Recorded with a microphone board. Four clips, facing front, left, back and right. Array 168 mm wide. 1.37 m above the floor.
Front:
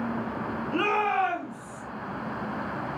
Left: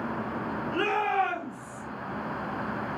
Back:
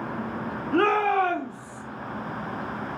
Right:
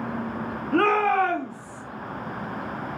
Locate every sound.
0.7 s a shout: 105° right, 2.5 m; by 1.8 s 115° right, 2.5 m